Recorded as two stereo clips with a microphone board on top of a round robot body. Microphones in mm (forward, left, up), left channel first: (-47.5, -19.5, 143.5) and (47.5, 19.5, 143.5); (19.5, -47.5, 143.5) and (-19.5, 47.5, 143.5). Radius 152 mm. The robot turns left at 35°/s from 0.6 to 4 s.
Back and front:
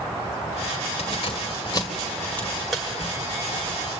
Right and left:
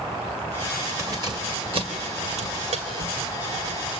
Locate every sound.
1.0 s keys jangling: 175° left, 2 m; by 3.8 s 75° left, 2 m